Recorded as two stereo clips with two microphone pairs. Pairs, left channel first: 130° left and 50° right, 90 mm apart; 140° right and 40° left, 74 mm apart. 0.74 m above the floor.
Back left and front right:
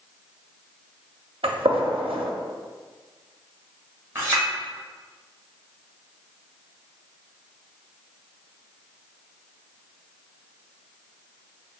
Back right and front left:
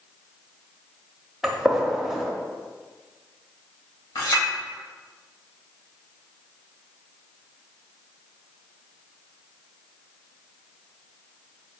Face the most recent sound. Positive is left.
turn(degrees=-115)